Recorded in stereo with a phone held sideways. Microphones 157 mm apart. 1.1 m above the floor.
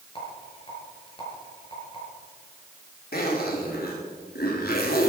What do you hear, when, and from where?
0.1 s a rattle: 35° left (ahead or behind), 5 m
3.1 s a zipper: 75° left (ahead or behind), 2.5 m